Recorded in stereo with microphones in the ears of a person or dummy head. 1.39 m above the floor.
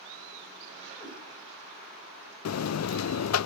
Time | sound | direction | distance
1.0 | a cat meowing | 20° left (ahead or behind) | 4 m
2.5 | a buzzer | 75° left (ahead or behind) | 0.5 m